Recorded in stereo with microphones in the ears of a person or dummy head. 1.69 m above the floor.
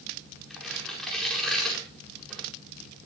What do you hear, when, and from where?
0.5 s tearing paper: 5° left (ahead or behind), 7.5 m